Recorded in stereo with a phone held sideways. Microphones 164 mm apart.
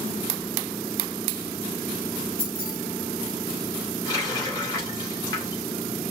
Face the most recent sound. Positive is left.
turn(degrees=25)  # may be behind; listen again after turning